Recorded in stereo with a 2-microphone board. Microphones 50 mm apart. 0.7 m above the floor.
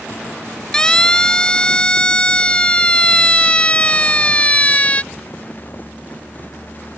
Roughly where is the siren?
Centre.